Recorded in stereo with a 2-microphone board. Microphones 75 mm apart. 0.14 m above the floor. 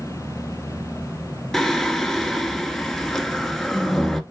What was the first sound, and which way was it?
Singing, 5° left (ahead or behind).